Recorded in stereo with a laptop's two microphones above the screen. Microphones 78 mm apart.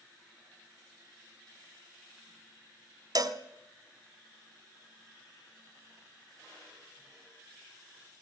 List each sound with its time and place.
3.1 s a cowbell: 60° right (ahead or behind), 1.3 m